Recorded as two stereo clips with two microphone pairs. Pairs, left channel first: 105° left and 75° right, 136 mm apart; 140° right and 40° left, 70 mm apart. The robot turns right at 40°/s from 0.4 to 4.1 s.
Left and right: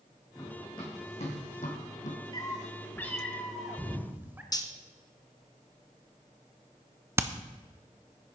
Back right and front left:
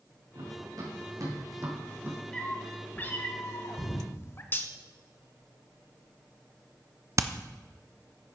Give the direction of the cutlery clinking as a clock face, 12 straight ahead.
6 o'clock.